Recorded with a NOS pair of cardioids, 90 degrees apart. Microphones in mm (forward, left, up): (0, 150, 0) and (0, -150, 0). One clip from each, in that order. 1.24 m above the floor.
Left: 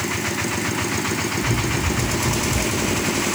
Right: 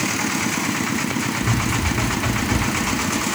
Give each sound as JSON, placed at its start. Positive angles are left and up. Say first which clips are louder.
{"t": 1.4, "sound": "running footsteps", "louder": "even", "azimuth_deg": -65, "distance_m": 6.0}